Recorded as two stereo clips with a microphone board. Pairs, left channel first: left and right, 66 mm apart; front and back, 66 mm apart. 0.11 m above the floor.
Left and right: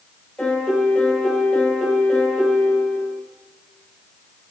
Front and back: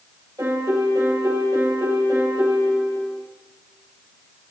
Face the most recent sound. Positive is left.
turn(degrees=165)